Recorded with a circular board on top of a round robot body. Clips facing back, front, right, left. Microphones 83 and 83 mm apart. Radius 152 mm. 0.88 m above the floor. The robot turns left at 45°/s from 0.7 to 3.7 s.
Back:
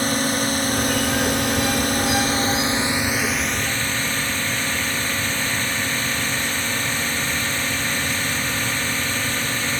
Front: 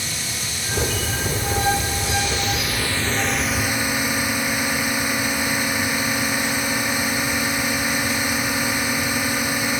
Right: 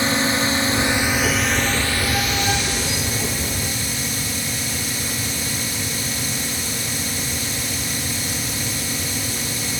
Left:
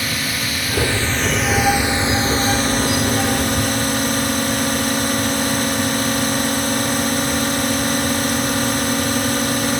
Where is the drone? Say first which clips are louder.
Back 10 dB, right 5 dB; 150° right; by 9.8 s 75° left.